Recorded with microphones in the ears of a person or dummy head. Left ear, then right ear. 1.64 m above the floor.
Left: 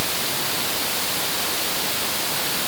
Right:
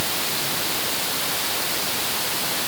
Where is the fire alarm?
I don't hear a fire alarm.